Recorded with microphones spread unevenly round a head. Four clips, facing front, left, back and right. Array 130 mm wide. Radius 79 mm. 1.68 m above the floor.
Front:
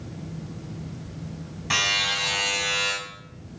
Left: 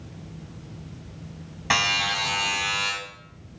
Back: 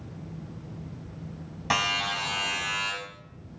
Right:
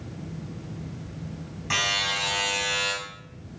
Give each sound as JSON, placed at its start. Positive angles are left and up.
{"t": 1.7, "sound": "a buzzer", "azimuth_deg": 120, "distance_m": 3.5}